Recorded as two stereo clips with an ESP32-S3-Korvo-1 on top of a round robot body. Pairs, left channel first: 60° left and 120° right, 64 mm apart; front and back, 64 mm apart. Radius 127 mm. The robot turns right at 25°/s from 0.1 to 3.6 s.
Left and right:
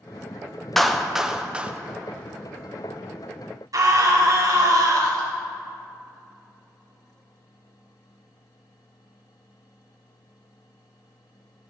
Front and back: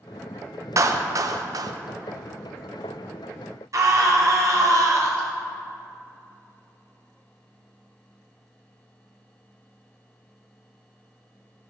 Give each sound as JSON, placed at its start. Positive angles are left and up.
{"t": 0.8, "sound": "a clap", "azimuth_deg": 145, "distance_m": 0.8}
{"t": 3.7, "sound": "a scream", "azimuth_deg": -145, "distance_m": 2.5}